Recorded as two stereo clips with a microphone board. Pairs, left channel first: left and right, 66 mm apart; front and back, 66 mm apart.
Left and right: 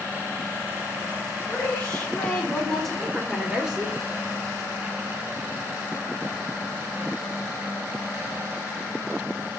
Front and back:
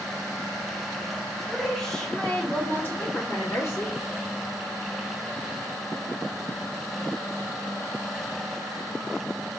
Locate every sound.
1.5 s a woman speaking: 85° left, 1.3 m; by 4.0 s 20° right, 1.7 m